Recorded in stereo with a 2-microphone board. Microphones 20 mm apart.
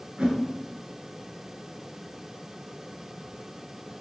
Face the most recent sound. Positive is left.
turn(degrees=-60)  # may be behind; listen again after turning